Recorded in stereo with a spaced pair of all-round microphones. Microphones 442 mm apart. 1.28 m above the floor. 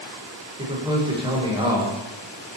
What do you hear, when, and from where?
0.6 s a man speaking: 10° right (ahead or behind), 1.0 m